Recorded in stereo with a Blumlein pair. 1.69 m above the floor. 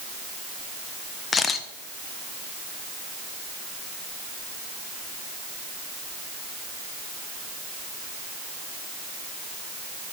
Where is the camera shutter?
15° left, 0.8 m.